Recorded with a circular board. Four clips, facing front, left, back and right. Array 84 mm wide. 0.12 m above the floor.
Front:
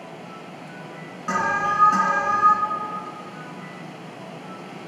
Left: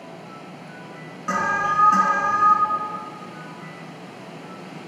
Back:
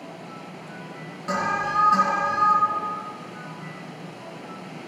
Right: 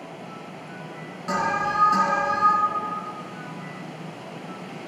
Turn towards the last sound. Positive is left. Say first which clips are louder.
# left 2 dB, front 2 dB
turn(degrees=50)